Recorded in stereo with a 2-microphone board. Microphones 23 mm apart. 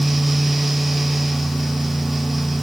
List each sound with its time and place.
Only background noise.